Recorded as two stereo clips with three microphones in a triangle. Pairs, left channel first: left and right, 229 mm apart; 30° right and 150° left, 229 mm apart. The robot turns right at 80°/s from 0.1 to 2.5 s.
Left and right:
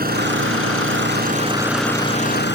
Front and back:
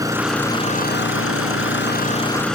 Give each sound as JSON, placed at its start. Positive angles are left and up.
{"t": 0.0, "sound": "an engine running", "azimuth_deg": -135}